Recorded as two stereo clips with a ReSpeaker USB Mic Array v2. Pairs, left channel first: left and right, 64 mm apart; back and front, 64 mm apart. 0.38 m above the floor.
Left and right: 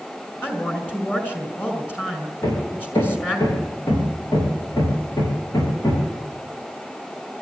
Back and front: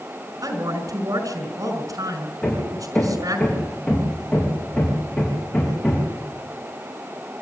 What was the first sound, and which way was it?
A woman speaking, 30° left.